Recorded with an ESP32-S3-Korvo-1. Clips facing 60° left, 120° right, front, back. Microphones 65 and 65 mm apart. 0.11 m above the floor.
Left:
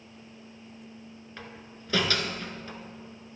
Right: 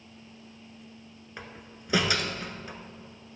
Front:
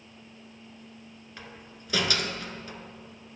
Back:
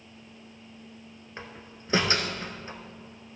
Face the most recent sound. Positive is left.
turn(degrees=180)